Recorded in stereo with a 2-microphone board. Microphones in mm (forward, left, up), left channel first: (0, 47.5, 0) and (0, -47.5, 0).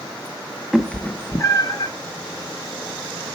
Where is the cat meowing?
Centre (ahead or behind), 0.8 m; by 1.9 s 50° left (ahead or behind), 1.2 m.